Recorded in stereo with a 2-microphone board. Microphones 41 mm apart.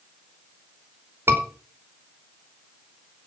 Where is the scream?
75° right (ahead or behind), 5 m.